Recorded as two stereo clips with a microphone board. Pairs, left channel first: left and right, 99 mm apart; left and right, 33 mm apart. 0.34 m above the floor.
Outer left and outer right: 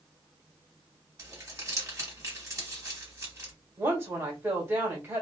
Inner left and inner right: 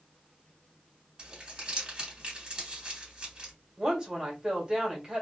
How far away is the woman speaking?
About 1.6 m.